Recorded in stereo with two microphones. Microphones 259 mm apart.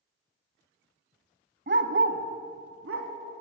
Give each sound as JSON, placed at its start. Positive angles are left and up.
{"t": 1.7, "sound": "a dog barking", "side_deg": -45, "distance_m": 1.1}